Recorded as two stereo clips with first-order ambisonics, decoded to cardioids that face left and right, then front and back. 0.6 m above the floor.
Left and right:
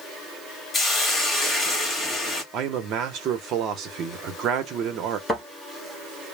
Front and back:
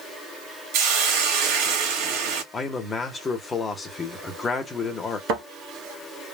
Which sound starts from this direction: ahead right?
A man speaking, at 2.5 s.